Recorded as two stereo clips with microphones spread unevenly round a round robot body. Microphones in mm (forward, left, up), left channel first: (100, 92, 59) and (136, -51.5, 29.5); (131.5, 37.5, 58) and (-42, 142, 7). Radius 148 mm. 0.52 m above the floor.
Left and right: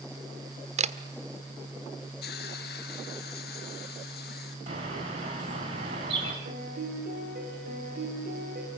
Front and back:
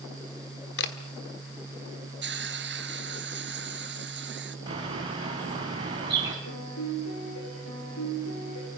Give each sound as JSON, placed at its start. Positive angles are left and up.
{"t": 0.8, "sound": "a camera shutter", "azimuth_deg": -70, "distance_m": 1.5}
{"t": 2.2, "sound": "a hiss", "azimuth_deg": 120, "distance_m": 2.5}
{"t": 4.7, "sound": "a bird", "azimuth_deg": -140, "distance_m": 3.0}
{"t": 6.5, "sound": "a piano", "azimuth_deg": -60, "distance_m": 9.0}